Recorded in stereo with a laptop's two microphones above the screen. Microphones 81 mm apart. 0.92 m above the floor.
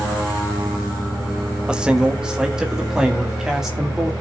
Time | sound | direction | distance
1.7 | a man speaking | 10° right (ahead or behind) | 1.0 m